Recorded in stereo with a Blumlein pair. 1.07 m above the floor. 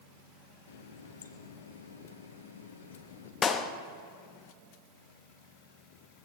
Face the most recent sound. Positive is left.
turn(degrees=20)